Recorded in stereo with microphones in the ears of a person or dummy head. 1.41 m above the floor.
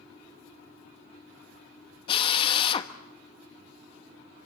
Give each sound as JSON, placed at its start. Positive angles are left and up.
{"t": 2.1, "sound": "a drill", "side_deg": 35, "distance_m": 1.2}